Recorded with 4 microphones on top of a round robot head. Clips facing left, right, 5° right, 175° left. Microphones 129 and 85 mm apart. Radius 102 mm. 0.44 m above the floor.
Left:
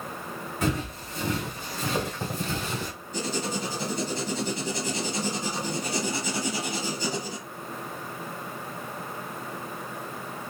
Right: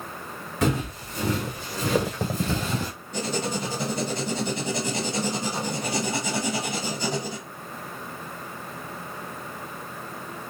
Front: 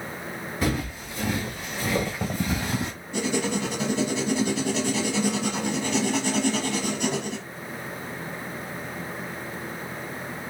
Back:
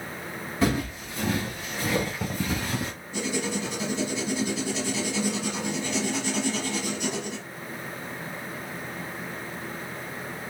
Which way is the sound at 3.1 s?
55° right.